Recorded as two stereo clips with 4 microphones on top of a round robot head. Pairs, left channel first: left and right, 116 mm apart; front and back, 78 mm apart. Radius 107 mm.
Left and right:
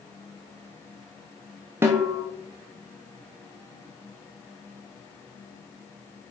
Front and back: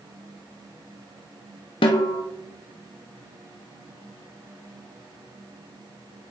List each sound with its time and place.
1.8 s a snare drum: 15° right, 0.5 m